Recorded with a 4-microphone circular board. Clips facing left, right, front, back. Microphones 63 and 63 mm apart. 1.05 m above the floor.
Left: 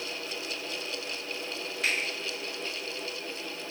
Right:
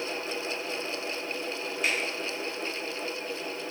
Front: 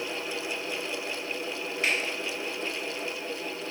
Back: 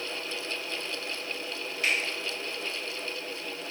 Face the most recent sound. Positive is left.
turn(degrees=70)